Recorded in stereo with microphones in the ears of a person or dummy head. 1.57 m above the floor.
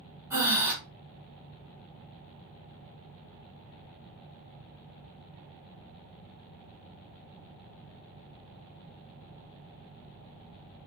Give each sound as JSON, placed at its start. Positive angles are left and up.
{"t": 0.3, "sound": "breathing", "side_deg": -15, "distance_m": 1.8}